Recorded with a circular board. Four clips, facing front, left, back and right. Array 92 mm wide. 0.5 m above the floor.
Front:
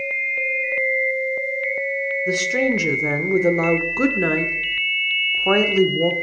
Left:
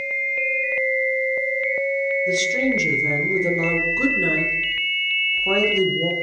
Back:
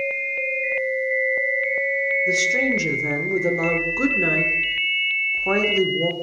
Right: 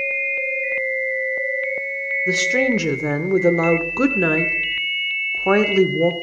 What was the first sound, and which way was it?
A woman speaking, 65° right.